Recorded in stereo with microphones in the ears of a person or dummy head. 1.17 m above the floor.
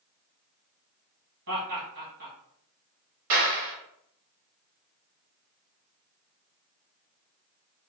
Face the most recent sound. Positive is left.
turn(degrees=-50)  # may be behind; listen again after turning